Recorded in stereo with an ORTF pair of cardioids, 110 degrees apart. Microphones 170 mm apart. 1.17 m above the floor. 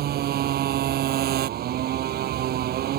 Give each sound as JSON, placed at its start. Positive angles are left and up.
{"t": 0.0, "sound": "a motorcycle", "azimuth_deg": -65}